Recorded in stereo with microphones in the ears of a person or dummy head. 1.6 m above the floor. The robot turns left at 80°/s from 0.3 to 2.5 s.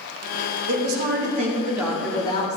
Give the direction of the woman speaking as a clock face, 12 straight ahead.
3 o'clock.